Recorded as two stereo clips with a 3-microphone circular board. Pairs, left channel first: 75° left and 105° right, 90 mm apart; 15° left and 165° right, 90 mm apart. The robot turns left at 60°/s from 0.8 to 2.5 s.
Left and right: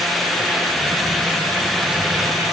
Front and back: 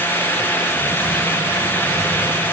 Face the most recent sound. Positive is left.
No sound to turn to.